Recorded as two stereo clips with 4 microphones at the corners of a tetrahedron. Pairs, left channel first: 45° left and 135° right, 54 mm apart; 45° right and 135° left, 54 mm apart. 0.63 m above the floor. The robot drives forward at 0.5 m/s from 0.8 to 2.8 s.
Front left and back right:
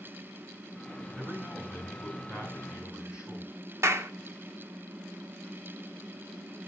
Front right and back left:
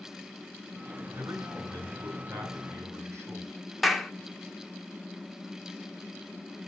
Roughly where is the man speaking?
Behind left.